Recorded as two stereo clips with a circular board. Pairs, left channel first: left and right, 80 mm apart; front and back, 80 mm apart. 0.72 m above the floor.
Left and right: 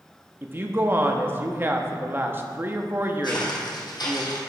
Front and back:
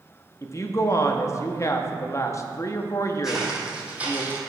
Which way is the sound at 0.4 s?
35° right.